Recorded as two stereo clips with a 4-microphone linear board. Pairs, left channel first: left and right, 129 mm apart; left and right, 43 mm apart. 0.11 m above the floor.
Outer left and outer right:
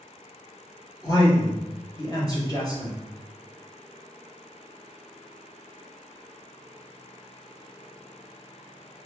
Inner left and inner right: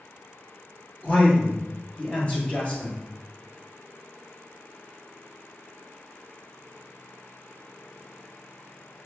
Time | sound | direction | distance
1.0 | a man speaking | 30° left (ahead or behind) | 1.7 m